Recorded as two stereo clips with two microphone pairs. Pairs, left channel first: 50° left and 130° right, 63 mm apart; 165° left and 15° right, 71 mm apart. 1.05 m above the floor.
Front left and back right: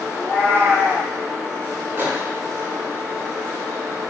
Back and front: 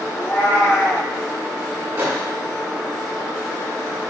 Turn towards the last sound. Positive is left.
turn(degrees=-65)